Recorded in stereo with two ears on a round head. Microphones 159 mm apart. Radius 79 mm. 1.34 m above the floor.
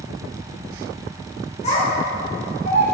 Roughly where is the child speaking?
Left.